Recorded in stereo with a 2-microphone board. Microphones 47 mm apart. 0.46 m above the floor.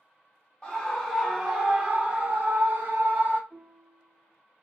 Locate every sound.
0.6 s a scream: 20° left (ahead or behind), 1.0 m; by 3.4 s 50° right (ahead or behind), 1.7 m
3.5 s a piano: 30° right (ahead or behind), 0.9 m